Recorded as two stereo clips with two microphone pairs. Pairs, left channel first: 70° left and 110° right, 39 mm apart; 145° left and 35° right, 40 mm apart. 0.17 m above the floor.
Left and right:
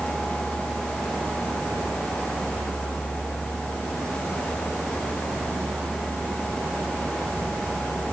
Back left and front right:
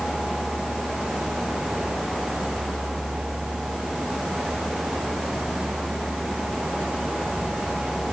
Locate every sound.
0.0 s a vehicle: 105° right; by 8.1 s 95° right